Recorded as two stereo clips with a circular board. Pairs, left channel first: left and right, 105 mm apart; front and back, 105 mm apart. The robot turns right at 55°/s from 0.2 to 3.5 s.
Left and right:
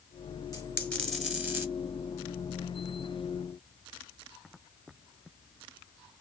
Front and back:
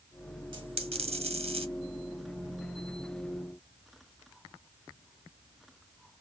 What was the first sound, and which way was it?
A dropped coin, 145° left.